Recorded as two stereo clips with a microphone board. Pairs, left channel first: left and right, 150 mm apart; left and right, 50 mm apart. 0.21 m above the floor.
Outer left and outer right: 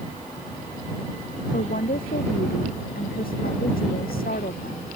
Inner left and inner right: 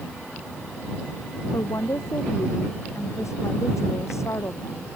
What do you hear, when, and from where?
1.5 s a woman speaking: 75° left (ahead or behind); by 4.9 s 80° left